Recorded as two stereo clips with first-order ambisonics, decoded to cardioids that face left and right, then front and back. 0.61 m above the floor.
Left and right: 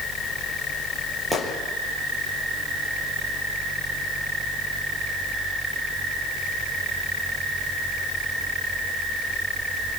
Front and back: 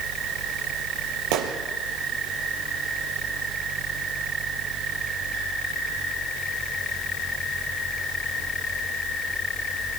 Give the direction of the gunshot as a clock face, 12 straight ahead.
6 o'clock.